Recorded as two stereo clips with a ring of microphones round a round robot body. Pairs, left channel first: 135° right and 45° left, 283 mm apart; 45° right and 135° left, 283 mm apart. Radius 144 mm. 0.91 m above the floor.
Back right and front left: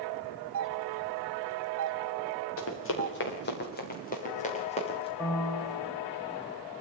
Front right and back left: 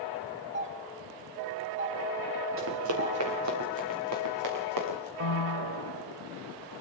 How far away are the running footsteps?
About 6 m.